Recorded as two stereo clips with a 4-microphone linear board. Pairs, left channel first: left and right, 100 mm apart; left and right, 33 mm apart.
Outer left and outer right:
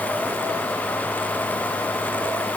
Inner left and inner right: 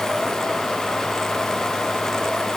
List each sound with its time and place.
Only background noise.